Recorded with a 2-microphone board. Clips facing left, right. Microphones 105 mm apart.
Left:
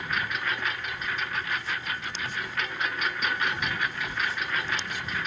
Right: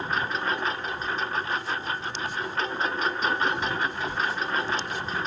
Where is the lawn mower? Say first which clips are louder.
Right 3 dB; 30° right (ahead or behind).